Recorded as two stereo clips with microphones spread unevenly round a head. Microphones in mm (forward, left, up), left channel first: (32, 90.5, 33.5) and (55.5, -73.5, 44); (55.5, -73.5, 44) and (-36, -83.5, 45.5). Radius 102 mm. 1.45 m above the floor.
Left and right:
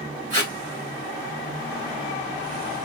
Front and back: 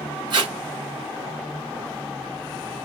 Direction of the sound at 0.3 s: 140° right.